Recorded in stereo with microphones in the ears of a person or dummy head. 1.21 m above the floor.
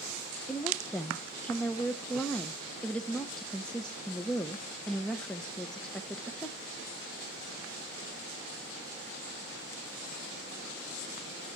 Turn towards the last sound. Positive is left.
turn(degrees=10)  # may be behind; listen again after turning